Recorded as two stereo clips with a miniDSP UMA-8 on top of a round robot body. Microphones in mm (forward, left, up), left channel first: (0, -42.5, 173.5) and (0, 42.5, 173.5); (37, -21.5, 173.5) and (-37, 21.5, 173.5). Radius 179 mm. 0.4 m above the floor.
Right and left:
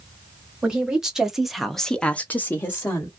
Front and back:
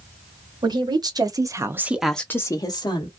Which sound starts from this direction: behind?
A woman speaking, at 0.6 s.